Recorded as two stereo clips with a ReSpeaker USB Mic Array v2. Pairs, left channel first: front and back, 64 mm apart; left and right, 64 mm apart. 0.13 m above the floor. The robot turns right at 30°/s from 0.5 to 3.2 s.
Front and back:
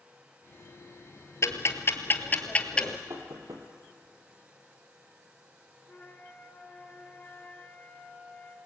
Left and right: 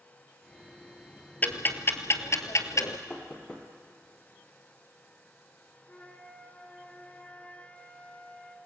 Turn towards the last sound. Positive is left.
turn(degrees=40)